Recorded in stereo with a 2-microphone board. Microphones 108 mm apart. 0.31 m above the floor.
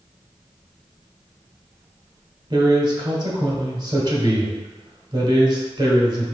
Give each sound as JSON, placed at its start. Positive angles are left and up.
{"t": 2.5, "sound": "a man speaking", "side_deg": -45, "distance_m": 1.2}